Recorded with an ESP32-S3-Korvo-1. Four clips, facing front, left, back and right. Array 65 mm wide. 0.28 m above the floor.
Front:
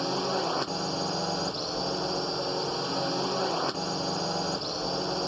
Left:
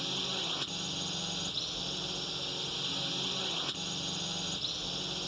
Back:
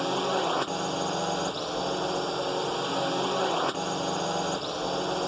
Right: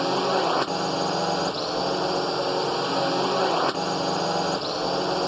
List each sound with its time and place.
0.0 s a drone: 100° right